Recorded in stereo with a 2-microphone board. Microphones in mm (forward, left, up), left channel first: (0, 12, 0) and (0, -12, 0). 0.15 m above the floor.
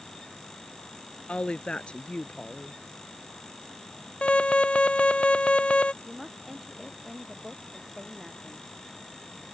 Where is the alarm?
60° left (ahead or behind).